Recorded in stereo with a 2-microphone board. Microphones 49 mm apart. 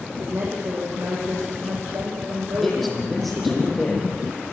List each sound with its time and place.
0.2 s a woman speaking: 75° right (ahead or behind), 6.5 m
2.6 s a man speaking: centre (ahead or behind), 8.5 m